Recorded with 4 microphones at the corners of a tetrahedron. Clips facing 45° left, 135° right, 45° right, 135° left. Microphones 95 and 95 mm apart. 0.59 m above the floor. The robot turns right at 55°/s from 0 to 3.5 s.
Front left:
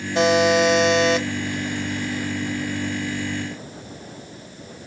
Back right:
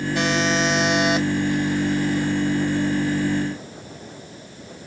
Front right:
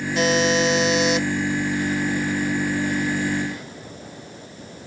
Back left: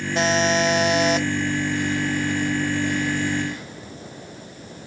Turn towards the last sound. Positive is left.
turn(degrees=-75)